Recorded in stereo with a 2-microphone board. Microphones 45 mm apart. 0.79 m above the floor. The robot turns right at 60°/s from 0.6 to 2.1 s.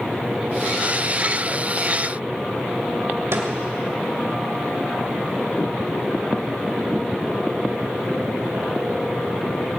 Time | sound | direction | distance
3.3 | a snare drum | 80° right | 2 m